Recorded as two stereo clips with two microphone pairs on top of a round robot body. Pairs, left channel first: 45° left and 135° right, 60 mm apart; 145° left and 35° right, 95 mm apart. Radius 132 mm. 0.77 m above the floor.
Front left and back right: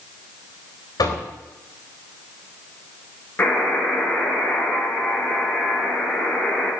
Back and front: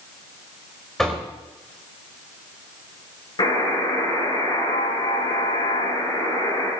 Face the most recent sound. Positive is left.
turn(degrees=105)